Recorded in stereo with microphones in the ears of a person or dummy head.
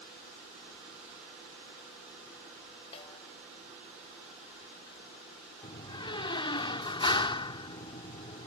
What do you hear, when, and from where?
2.9 s a snare drum: 30° left (ahead or behind)
5.6 s a door slam: 30° left (ahead or behind)